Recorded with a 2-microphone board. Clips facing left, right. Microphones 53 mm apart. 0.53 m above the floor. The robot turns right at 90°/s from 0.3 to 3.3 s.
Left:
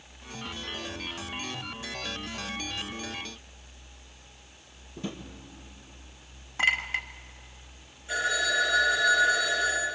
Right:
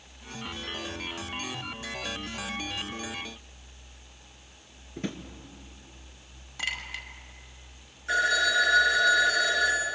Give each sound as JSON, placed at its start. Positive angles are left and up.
{"t": 5.0, "sound": "a drawer", "side_deg": -55, "distance_m": 2.5}
{"t": 6.6, "sound": "a clink", "side_deg": 35, "distance_m": 1.6}
{"t": 8.1, "sound": "a phone ringing", "side_deg": -70, "distance_m": 6.5}